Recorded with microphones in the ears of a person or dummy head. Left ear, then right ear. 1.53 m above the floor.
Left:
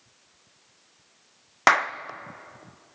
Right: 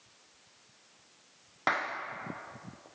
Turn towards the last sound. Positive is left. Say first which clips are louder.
# left 11 dB
turn(degrees=40)  # may be behind; listen again after turning